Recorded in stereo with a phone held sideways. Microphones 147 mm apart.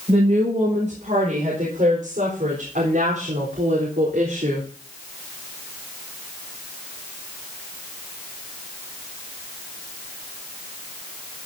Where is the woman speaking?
55° right (ahead or behind), 5.5 m; by 4.7 s 85° right, 3.5 m.